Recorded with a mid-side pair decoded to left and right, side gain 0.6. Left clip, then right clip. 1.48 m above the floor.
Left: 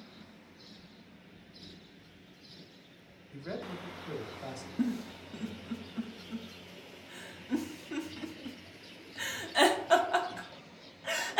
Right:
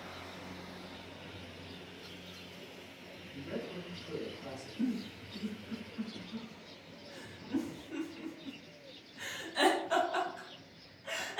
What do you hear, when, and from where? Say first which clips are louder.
3.3 s a man speaking: left 2 dB; 65° left, 1.2 m
4.8 s a giggle: left 2 dB; 55° left, 0.7 m